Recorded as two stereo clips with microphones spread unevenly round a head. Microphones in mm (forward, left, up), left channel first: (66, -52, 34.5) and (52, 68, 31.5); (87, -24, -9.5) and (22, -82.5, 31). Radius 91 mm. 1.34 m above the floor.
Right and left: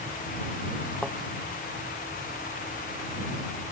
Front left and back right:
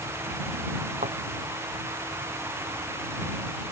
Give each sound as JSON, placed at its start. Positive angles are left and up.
{"t": 1.0, "sound": "a thud", "azimuth_deg": -170}